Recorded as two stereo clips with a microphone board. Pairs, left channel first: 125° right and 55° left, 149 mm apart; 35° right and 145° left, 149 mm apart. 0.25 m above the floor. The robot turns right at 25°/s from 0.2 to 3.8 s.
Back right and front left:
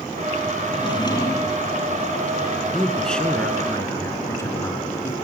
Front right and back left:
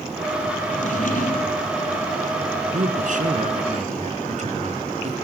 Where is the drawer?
70° right, 2.5 m; by 1.7 s 45° right, 2.5 m.